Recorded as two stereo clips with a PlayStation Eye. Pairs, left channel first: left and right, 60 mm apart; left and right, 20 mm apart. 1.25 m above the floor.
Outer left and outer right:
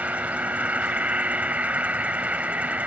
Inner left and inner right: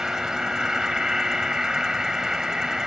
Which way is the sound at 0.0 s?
25° right (ahead or behind).